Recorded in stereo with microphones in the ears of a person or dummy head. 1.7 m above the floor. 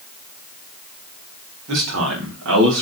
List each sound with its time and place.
1.7 s a man speaking: 85° right, 4.5 m; by 2.8 s 80° right, 4 m